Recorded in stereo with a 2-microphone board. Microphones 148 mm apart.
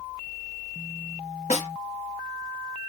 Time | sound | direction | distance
1.5 | a snare drum | 50° left (ahead or behind) | 0.7 m